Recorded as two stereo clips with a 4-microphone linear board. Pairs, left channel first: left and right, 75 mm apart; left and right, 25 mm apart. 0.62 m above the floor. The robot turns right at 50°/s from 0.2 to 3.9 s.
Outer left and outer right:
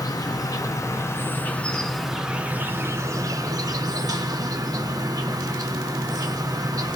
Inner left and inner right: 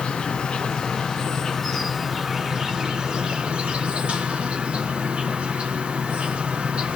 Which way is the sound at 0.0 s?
90° left.